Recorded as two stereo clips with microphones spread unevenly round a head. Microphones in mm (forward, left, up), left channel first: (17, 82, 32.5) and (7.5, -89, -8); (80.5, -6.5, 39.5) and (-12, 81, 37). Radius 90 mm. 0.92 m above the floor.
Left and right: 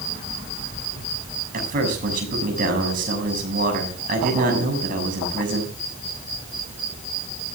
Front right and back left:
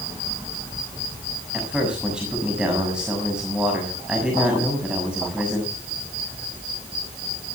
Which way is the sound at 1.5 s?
140° right.